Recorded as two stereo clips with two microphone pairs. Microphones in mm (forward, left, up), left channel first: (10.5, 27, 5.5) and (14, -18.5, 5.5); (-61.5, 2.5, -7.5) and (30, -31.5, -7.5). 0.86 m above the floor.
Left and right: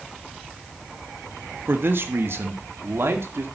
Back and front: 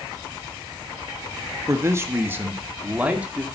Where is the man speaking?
70° right, 1.1 m; by 3.5 s 95° right, 2 m.